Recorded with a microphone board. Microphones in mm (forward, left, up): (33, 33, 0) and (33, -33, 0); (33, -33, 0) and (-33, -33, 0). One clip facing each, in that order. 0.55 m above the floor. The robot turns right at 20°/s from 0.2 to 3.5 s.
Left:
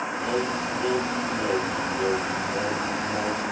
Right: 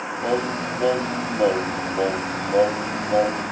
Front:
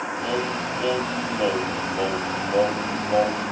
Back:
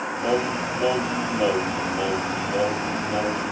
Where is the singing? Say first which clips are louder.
Right 4 dB, back 4 dB; 115° right, 1.1 m; by 3.5 s 50° right, 1.1 m.